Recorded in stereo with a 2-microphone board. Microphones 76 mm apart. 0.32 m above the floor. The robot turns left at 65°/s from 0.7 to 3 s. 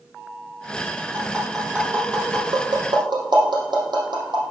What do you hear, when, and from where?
1.1 s tapping: 25° left (ahead or behind), 3.5 m; by 4.4 s 85° right, 3.5 m